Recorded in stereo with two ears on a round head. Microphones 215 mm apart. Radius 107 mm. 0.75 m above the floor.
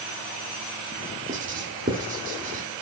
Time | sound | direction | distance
1.3 | writing | 35° right (ahead or behind) | 2.0 m